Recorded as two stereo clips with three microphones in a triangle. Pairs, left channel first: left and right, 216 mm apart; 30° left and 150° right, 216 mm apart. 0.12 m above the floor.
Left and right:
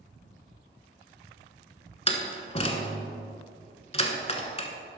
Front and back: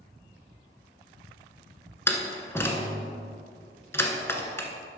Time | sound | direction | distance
2.1 | a door slam | 95° left | 0.9 m